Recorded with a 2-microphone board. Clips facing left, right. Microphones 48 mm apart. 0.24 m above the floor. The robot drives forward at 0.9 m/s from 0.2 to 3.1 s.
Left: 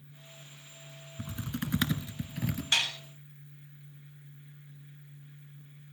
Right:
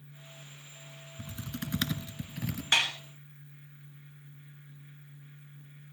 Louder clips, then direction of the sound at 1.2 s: Left 3 dB; 30° left (ahead or behind).